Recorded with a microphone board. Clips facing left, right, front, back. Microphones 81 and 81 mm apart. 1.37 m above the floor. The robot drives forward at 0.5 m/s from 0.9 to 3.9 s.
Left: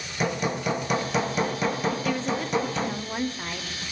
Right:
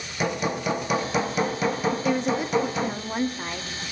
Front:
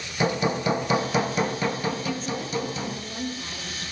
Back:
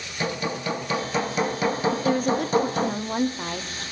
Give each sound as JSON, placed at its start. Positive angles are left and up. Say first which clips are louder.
{"t": 0.2, "sound": "hammering", "louder": "right 1 dB, front 4 dB", "azimuth_deg": -5, "distance_m": 0.7}
{"t": 1.9, "sound": "a woman speaking", "louder": "right 3 dB, back 7 dB", "azimuth_deg": -150, "distance_m": 0.5}